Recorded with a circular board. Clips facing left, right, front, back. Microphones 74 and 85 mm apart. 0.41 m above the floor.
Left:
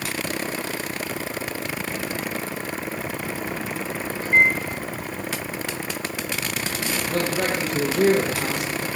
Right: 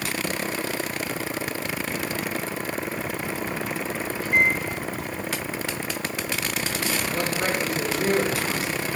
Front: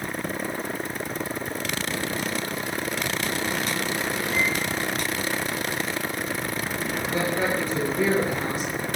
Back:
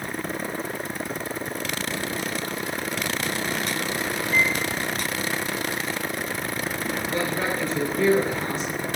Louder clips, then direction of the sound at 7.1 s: Left 5 dB, front 2 dB; 85° left.